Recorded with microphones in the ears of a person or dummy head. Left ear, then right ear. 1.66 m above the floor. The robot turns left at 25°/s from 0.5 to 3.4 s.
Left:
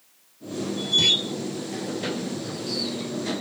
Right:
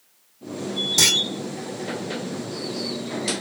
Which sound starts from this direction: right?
A clunk, at 1.0 s.